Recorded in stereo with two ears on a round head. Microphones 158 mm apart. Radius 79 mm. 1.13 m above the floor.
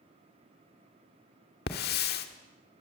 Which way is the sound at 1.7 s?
60° left (ahead or behind).